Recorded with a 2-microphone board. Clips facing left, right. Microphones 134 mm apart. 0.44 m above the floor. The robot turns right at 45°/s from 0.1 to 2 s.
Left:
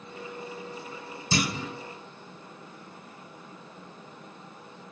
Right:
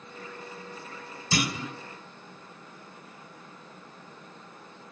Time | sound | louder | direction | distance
1.3 | a clunk | left 1 dB | 25° left (ahead or behind) | 0.6 m